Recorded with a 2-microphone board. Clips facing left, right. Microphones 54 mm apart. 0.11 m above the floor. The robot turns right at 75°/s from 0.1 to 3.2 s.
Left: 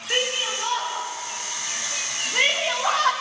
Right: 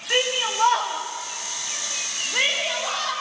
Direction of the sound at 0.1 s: 10° right (ahead or behind).